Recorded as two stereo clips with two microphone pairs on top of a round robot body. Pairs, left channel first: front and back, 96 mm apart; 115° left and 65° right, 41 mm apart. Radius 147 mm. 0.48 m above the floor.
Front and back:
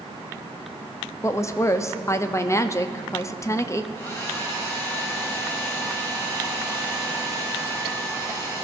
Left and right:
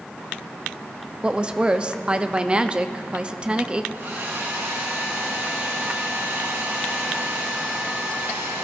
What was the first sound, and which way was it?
A woman speaking, 15° right.